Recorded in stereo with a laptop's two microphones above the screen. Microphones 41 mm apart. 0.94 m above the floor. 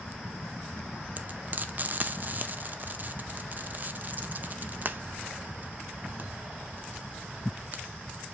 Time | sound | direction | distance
1.2 | frying | 45° right (ahead or behind) | 0.5 m